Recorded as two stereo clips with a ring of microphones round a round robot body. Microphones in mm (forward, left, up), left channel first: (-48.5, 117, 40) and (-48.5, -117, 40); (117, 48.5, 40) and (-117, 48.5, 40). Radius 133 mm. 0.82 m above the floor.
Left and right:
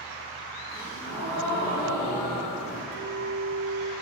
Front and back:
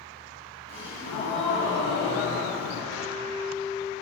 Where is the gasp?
35° left, 5.5 m.